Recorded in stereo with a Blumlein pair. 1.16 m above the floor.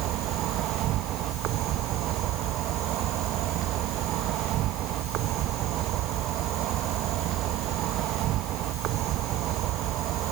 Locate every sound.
0.0 s an insect: 35° right